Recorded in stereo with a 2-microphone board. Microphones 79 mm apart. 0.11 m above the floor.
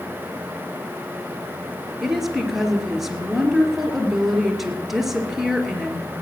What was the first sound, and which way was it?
A woman speaking, 5° right (ahead or behind).